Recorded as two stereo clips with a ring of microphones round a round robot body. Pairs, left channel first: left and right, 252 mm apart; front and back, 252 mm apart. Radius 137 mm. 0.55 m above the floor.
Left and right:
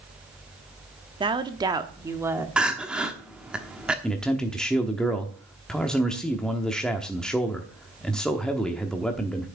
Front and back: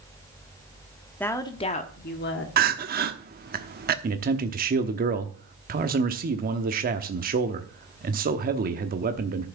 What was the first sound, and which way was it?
A woman speaking, 70° right.